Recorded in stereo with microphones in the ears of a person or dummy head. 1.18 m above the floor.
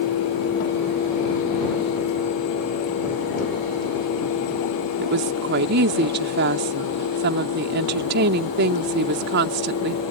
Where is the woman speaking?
60° right (ahead or behind).